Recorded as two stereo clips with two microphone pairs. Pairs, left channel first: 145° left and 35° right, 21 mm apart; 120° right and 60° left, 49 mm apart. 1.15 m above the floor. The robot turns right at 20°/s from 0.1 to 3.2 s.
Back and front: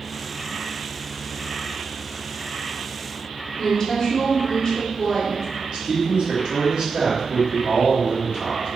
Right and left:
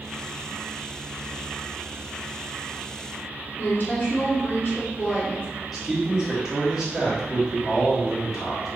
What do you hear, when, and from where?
3.6 s a woman speaking: 155° right, 0.8 m
5.7 s a man speaking: 20° right, 0.9 m